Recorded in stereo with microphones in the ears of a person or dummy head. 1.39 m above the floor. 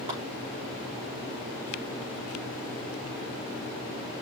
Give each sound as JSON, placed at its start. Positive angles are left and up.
{"t": 0.1, "sound": "a clap", "side_deg": -25, "distance_m": 5.5}